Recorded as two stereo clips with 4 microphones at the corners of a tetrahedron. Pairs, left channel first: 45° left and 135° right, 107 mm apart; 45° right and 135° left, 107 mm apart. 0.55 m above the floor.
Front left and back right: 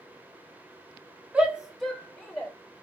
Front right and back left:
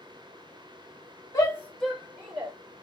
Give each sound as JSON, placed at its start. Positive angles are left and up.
{"t": 1.3, "sound": "a shout", "azimuth_deg": -65, "distance_m": 1.0}